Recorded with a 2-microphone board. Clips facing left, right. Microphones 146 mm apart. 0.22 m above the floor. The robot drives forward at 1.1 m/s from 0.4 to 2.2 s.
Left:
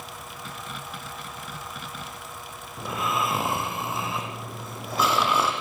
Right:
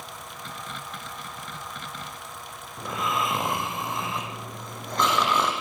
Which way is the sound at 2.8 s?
5° left (ahead or behind).